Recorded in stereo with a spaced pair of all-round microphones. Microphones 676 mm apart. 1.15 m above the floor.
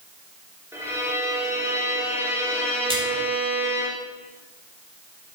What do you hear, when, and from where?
0.7 s a violin: 5° right (ahead or behind), 3 m
2.9 s a splash: 10° right (ahead or behind), 4 m